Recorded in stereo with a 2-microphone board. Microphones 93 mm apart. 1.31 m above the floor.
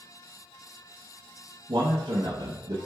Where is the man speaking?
70° right (ahead or behind), 0.9 m.